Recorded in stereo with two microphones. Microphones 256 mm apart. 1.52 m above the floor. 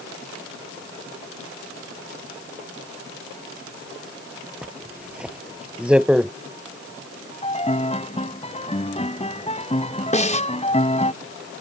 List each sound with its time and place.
4.6 s a zipper: 5° right (ahead or behind)
7.4 s a piano: 25° left (ahead or behind)
10.1 s a snare drum: 25° left (ahead or behind)